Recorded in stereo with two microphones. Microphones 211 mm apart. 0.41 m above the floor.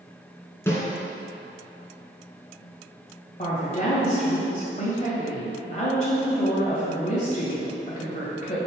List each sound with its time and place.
0.7 s a snare drum: 10° left (ahead or behind), 1.6 m
3.4 s a woman speaking: 35° left (ahead or behind), 1.7 m